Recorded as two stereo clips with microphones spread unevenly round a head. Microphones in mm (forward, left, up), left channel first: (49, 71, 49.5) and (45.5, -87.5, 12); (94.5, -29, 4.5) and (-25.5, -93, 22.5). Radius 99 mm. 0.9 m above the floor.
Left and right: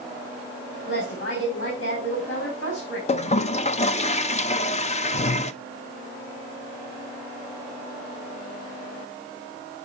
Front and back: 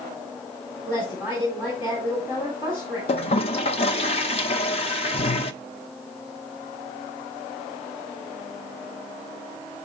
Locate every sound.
0.8 s a woman speaking: 95° left, 3 m
3.1 s a toilet flushing: 40° left, 0.5 m